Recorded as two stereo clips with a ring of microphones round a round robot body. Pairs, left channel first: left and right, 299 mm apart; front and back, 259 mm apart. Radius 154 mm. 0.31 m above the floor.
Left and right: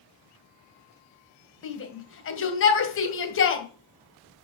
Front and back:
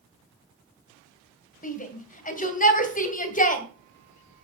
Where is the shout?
55° left, 2.5 m.